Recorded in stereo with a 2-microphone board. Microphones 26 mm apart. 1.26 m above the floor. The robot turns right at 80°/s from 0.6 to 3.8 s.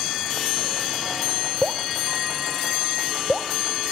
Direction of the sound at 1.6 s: 35° right (ahead or behind).